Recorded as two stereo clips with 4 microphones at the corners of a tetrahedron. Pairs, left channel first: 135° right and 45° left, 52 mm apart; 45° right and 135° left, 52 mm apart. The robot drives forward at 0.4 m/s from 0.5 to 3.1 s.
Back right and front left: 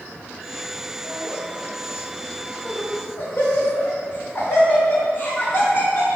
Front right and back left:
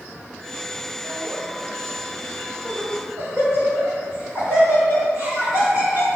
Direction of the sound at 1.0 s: 165° right.